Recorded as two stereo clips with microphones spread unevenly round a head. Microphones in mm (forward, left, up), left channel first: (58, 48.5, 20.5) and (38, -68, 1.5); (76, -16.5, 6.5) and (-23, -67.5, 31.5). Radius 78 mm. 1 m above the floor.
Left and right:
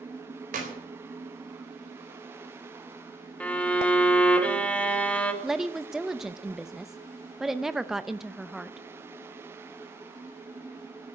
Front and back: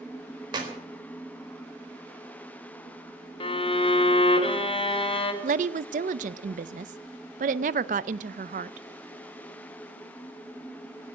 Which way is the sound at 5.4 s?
175° left.